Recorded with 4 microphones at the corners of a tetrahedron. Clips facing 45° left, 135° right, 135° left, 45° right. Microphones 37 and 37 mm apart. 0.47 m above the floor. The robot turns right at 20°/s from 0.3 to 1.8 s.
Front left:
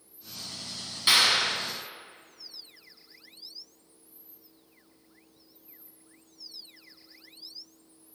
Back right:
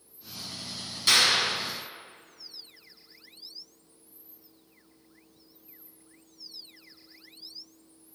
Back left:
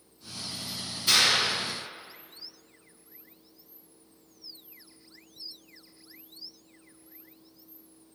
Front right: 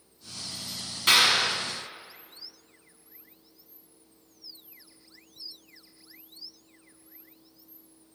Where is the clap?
25° right, 3 m; by 1.6 s 15° right, 3 m.